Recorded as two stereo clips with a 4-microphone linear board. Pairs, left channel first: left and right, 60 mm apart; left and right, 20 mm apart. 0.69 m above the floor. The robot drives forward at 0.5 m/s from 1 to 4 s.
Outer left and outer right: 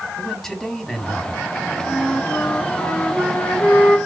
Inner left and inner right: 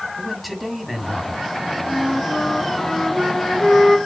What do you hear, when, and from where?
0.2 s a man speaking: 5° left (ahead or behind), 2.0 m
1.9 s a flute: 35° left (ahead or behind), 1.8 m; by 4.0 s 25° left (ahead or behind), 2.5 m